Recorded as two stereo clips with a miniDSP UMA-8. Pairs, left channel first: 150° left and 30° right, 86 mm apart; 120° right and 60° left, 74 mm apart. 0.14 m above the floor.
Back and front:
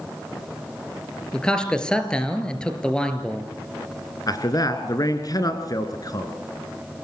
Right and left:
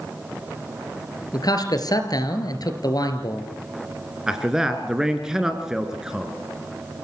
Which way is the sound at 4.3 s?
140° left.